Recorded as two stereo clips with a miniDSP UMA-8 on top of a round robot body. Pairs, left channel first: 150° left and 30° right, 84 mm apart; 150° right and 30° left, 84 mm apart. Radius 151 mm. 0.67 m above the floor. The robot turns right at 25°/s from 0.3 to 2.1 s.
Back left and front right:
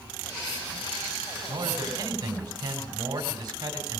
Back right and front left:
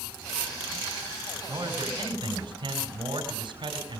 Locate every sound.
1.5 s a man speaking: 10° right, 3.5 m; by 4.0 s 5° left, 3.5 m